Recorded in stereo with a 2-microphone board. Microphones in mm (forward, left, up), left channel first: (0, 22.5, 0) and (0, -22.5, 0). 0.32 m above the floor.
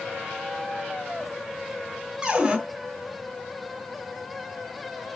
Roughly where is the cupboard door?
Centre.